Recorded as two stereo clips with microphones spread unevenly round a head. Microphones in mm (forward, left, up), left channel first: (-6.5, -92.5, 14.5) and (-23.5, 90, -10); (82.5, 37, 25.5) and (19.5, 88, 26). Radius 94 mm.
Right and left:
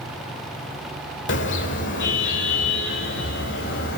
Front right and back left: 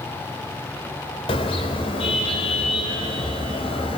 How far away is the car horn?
About 3 m.